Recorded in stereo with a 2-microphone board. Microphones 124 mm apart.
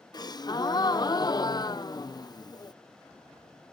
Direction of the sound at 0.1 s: 30° left (ahead or behind).